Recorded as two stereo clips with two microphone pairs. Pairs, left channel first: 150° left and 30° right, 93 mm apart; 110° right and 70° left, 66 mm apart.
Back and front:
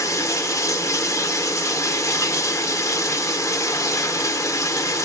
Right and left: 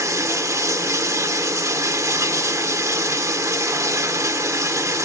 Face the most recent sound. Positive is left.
turn(degrees=100)